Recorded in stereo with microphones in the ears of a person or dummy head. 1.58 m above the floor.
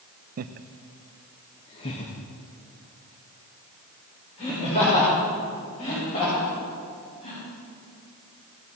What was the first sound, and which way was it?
Laughter, 40° right (ahead or behind).